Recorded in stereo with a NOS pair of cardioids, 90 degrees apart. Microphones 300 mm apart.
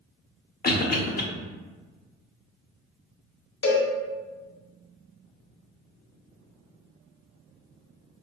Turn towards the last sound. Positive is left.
turn(degrees=45)